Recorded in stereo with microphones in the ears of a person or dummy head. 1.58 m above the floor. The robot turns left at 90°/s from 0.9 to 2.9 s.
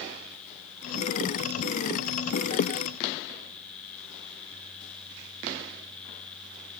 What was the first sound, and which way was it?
Only background noise.